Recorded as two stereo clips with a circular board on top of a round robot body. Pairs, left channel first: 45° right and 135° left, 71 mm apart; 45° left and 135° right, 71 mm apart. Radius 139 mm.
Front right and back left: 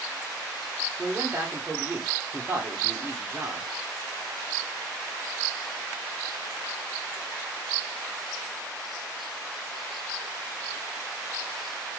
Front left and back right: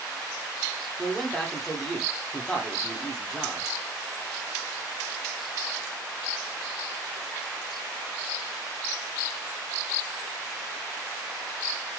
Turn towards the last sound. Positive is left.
turn(degrees=115)